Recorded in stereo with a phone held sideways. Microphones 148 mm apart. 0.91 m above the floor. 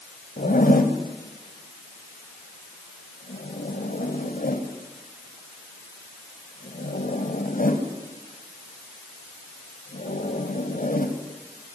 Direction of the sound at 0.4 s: 80° left.